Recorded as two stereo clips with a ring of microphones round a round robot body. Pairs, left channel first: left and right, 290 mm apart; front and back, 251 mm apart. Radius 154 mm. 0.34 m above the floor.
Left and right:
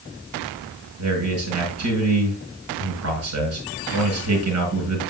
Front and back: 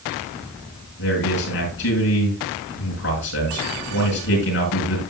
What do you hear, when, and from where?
1.0 s a man speaking: 50° right, 8 m